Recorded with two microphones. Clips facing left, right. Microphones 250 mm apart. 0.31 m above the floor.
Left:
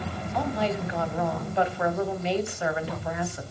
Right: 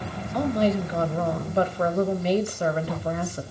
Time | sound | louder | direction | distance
0.3 | a woman speaking | right 6 dB | 40° right (ahead or behind) | 1.7 m